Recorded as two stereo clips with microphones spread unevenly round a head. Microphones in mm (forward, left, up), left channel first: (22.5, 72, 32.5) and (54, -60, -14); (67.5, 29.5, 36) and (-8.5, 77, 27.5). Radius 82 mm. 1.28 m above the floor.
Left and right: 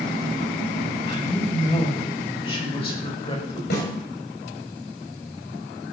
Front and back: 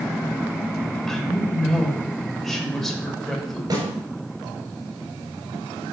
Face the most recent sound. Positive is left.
turn(degrees=105)